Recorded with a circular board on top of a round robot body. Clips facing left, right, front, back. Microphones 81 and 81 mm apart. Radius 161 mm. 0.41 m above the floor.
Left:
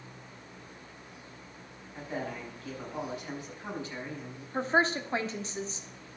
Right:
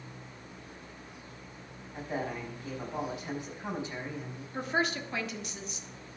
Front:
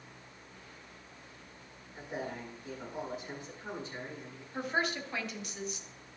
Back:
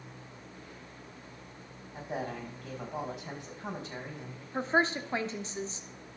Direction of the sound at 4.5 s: 135° left.